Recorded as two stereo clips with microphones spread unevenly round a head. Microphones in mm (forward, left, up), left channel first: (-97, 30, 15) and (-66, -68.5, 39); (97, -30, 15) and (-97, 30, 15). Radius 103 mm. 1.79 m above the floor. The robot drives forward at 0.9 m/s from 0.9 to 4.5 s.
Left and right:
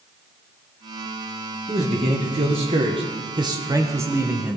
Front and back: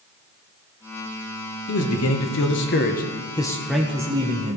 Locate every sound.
1.7 s a man speaking: 25° right, 1.9 m; by 4.6 s 140° right, 1.3 m